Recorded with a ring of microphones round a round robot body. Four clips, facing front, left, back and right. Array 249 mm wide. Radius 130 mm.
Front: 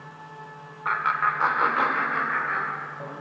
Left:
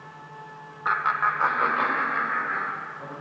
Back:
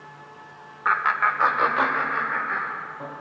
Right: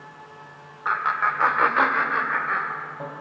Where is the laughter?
155° left, 1.1 m; by 3.1 s 80° right, 2 m.